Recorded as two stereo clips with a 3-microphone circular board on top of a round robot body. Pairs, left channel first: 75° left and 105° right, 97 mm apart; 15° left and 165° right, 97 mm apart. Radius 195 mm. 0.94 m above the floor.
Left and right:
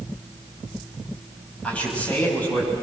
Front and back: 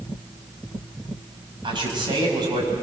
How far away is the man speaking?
About 7 m.